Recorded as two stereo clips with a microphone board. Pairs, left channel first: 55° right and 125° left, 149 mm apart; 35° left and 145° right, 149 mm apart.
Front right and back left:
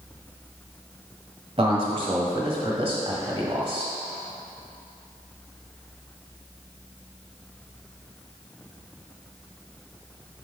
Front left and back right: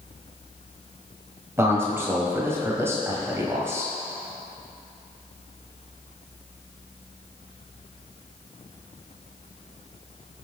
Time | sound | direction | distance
1.6 | a man speaking | 150° left | 1.5 m